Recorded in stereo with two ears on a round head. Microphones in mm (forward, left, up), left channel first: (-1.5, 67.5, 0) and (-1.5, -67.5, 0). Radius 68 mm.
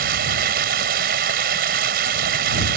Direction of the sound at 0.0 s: 65° right (ahead or behind).